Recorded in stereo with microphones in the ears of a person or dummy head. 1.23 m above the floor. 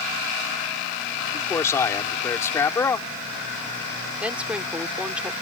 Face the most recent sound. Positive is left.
turn(degrees=-10)  # may be behind; listen again after turning